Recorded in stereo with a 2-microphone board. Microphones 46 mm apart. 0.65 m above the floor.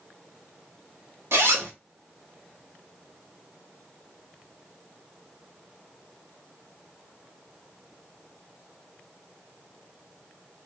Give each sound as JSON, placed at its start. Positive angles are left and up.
{"t": 1.3, "sound": "a zipper", "side_deg": -75, "distance_m": 1.1}